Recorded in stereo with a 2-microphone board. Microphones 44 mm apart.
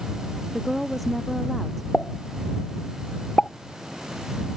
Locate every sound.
0.5 s a woman speaking: centre (ahead or behind)
1.9 s a pop: 30° left (ahead or behind)